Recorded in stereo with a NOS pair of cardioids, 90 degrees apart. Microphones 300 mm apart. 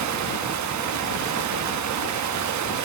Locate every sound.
0.0 s running water: 65° right, 1.1 m